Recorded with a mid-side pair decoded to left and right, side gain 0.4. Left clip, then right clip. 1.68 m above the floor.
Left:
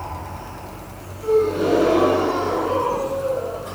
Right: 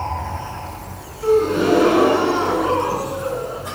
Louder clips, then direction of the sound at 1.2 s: Right 2 dB; 60° right.